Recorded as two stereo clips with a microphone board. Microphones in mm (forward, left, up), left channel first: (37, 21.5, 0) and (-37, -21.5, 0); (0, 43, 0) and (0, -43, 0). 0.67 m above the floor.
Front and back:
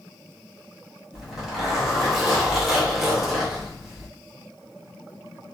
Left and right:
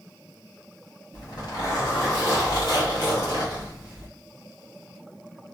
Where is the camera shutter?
No camera shutter in this recording.